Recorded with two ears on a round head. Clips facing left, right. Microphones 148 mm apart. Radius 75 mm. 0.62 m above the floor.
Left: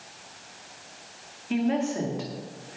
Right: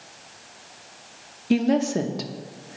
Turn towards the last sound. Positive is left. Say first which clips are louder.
# right 5 dB
turn(degrees=-45)  # may be behind; listen again after turning